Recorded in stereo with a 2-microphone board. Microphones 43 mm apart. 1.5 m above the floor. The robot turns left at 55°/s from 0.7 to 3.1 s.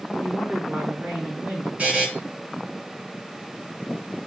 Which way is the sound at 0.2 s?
25° right.